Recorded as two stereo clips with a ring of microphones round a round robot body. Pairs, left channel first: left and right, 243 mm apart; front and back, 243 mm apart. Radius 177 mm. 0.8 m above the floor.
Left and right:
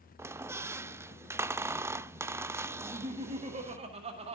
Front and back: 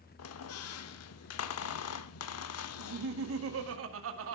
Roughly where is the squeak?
Ahead.